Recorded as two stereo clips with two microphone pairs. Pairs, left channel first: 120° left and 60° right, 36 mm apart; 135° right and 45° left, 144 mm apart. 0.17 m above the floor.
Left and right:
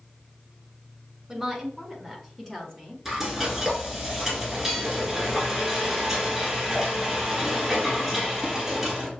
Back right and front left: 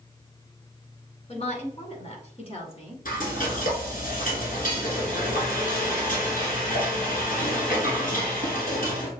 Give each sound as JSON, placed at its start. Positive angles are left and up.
{"t": 1.3, "sound": "a woman speaking", "azimuth_deg": -140, "distance_m": 1.6}
{"t": 3.0, "sound": "frying", "azimuth_deg": -145, "distance_m": 2.5}